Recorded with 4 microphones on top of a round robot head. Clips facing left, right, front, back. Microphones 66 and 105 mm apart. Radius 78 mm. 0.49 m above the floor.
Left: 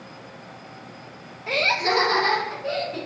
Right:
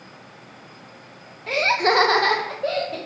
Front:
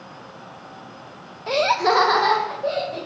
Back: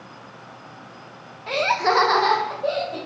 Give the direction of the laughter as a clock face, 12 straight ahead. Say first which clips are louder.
Right 3 dB, front 2 dB; 12 o'clock.